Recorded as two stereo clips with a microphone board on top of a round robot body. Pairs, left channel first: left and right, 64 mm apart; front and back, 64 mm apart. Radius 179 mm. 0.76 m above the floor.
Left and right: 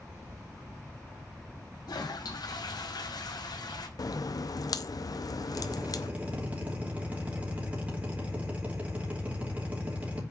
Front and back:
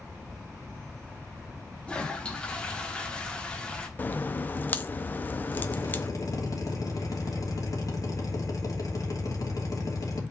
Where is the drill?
25° right, 2.5 m.